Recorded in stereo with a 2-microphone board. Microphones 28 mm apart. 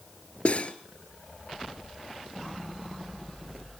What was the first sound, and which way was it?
Cutlery clinking, 50° left (ahead or behind).